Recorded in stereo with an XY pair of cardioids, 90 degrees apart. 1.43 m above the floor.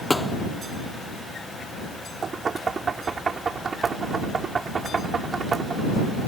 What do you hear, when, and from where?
0.1 s a thud: 15° left
2.2 s knocking: 45° right